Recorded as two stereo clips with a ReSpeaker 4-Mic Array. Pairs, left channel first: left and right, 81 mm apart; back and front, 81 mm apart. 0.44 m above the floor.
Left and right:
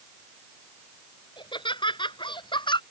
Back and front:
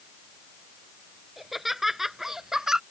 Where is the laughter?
85° left; by 2.8 s 80° left.